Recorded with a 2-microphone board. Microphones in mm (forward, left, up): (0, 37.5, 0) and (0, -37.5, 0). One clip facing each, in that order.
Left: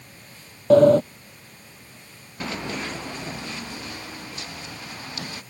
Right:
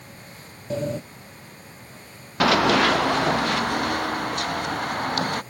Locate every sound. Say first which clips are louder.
0.7 s a sliding door: left 15 dB; 70° left (ahead or behind)
2.4 s running footsteps: right 13 dB; 85° right; by 5.4 s 55° right (ahead or behind)